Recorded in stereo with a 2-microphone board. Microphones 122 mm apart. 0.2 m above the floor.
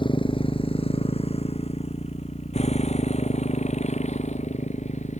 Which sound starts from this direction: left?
A motorcycle, at 0.0 s.